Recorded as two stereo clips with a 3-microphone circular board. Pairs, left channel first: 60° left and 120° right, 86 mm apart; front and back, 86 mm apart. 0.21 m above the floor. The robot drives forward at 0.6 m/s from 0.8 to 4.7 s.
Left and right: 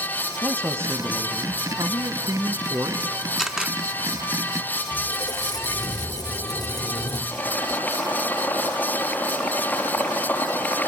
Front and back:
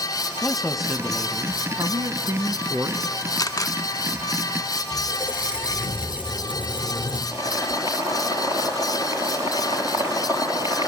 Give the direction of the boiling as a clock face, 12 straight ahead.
8 o'clock.